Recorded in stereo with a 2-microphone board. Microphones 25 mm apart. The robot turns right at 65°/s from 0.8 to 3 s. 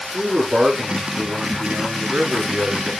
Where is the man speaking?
145° right, 4 m; by 2.9 s 5° right, 4 m.